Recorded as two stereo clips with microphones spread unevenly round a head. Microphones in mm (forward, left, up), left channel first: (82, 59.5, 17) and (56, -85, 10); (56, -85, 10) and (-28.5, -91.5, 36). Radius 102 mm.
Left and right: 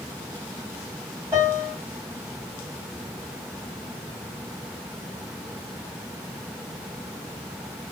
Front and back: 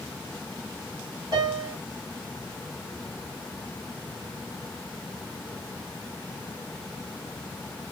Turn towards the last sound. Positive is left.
turn(degrees=-175)